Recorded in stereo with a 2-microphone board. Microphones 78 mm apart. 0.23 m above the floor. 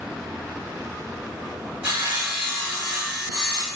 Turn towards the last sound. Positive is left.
turn(degrees=-15)  # may be behind; listen again after turning